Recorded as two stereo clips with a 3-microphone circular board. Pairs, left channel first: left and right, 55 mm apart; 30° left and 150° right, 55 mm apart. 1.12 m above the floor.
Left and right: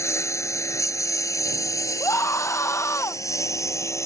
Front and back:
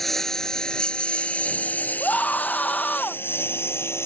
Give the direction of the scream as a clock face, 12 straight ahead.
9 o'clock.